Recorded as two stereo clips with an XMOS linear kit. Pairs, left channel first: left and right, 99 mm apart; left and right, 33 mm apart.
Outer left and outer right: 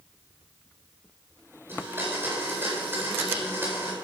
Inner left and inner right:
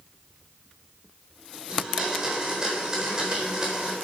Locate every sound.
1.7 s a blender: 25° right (ahead or behind), 4 m